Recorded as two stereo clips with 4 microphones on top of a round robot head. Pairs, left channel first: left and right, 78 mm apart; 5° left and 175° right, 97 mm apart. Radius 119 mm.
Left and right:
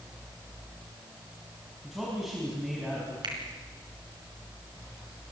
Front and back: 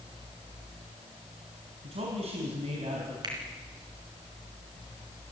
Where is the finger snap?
125° right, 4 m.